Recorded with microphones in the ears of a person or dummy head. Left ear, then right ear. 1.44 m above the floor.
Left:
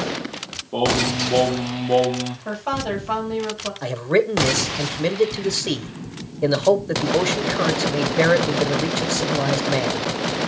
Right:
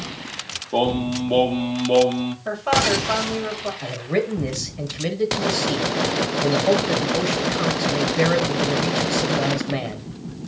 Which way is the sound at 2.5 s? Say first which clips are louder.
Right 7 dB; 10° left (ahead or behind).